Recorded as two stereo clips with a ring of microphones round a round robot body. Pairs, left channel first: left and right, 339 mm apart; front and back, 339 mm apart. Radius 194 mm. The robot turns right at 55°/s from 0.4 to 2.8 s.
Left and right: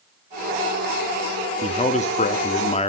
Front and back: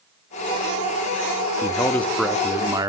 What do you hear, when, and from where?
1.6 s a man speaking: 55° left, 0.7 m; by 2.9 s 120° left, 0.7 m